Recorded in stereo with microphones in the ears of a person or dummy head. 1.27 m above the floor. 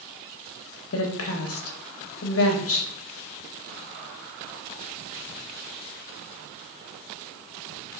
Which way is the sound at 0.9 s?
65° left (ahead or behind).